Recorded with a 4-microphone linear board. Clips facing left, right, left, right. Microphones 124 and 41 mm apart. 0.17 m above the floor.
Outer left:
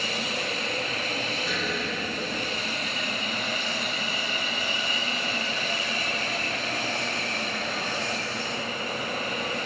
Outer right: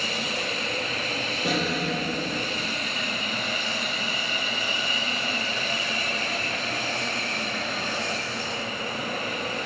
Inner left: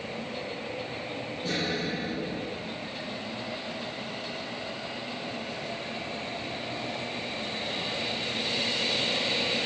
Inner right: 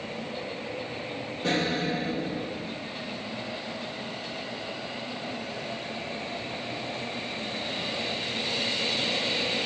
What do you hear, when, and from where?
1.4 s an explosion: 75° right (ahead or behind), 7 m